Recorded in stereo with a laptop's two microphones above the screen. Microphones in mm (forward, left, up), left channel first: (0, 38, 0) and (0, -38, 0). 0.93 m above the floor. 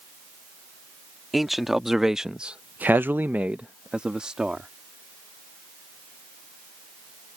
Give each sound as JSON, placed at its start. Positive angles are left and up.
{"t": 1.3, "sound": "a man speaking", "side_deg": 0}